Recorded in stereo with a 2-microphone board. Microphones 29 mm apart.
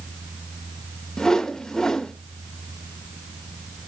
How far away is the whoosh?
About 1.1 m.